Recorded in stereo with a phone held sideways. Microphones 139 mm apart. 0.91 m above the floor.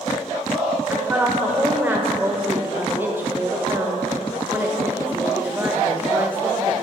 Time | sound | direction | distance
0.9 | a woman speaking | 15° right (ahead or behind) | 0.8 m